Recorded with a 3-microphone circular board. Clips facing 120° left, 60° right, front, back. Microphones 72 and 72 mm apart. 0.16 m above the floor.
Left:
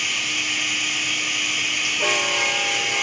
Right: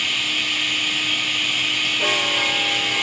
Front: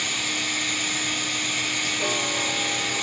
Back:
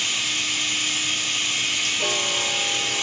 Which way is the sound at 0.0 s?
45° left.